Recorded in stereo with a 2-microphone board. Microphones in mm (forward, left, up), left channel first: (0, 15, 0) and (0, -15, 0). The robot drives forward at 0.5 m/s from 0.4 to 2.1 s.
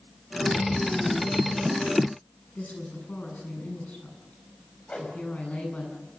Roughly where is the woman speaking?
Left.